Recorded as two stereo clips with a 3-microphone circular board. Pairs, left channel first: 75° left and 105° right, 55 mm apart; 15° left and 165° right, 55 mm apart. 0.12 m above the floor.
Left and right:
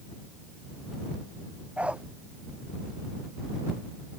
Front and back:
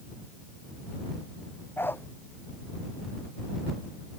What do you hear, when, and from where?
1.8 s a dog barking: 35° right